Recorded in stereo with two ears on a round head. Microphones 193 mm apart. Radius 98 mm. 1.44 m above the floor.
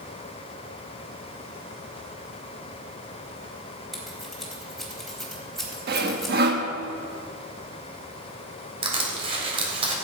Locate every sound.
3.9 s scissors: centre (ahead or behind), 4 m
5.9 s sawing: 50° right (ahead or behind), 1.3 m
8.8 s crushing: 30° right (ahead or behind), 3 m